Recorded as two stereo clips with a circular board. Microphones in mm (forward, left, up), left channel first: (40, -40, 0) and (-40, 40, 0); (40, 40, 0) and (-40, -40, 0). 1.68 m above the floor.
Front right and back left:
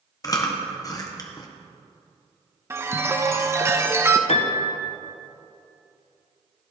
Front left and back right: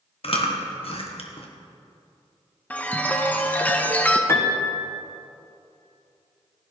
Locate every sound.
0.2 s chewing: 15° left, 1.5 m
2.7 s a chime: 105° left, 0.8 m
4.3 s a piano: 20° right, 1.4 m